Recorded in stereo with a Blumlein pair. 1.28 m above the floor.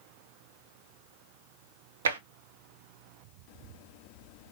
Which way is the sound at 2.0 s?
65° right.